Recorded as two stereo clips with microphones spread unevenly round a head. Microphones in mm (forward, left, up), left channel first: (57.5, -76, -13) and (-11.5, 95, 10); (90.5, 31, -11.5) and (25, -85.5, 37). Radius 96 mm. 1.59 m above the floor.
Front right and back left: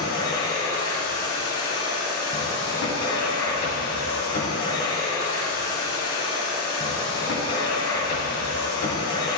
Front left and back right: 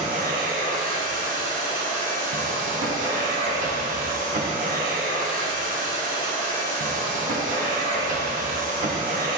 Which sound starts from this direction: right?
A machine running, at 0.0 s.